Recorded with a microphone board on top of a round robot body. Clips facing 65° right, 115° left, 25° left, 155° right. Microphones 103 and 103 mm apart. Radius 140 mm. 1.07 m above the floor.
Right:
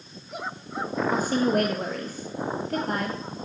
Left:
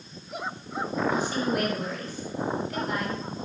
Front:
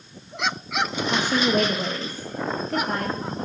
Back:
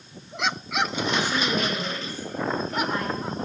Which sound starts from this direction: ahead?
A woman speaking, at 1.1 s.